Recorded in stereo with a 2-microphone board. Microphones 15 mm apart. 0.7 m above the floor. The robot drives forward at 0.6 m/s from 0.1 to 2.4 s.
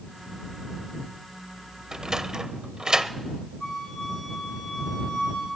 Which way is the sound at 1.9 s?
55° right (ahead or behind).